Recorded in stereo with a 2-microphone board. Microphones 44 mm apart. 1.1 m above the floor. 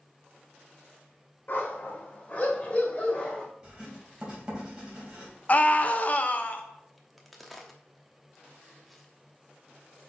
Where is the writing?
20° right (ahead or behind), 3 m.